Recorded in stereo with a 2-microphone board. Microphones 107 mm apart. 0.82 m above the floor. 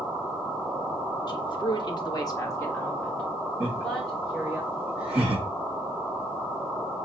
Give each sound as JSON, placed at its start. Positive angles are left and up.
{"t": 1.3, "sound": "a woman speaking", "side_deg": 45, "distance_m": 0.9}
{"t": 3.6, "sound": "laughter", "side_deg": -10, "distance_m": 2.0}